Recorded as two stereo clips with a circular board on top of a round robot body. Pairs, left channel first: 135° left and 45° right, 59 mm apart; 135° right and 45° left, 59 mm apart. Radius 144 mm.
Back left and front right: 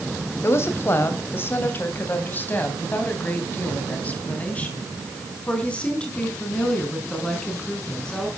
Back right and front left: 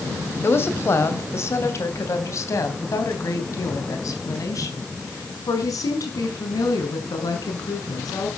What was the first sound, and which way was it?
A woman speaking, straight behind.